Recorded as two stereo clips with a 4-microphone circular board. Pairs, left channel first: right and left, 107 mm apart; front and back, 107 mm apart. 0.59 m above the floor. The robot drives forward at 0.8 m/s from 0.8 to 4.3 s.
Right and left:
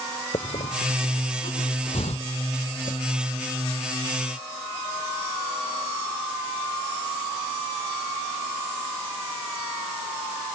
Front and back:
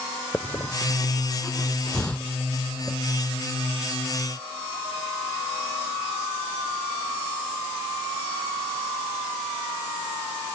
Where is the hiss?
75° right; by 3.0 s 85° right.